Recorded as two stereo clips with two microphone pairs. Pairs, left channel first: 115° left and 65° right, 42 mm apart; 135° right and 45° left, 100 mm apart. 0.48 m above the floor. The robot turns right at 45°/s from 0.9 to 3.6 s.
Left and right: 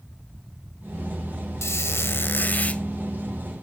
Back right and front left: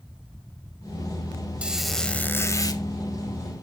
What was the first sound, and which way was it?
A squeak, 120° left.